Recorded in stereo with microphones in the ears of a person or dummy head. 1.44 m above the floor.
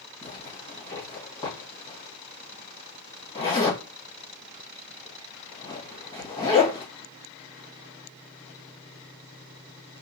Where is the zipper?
25° left (ahead or behind), 1.1 m.